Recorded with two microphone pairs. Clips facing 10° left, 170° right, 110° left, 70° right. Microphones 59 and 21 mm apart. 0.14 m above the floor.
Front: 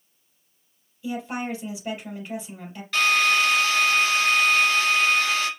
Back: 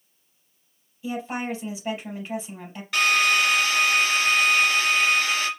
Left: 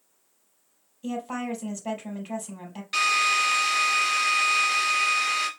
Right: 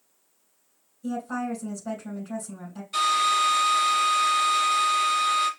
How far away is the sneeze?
I don't hear a sneeze.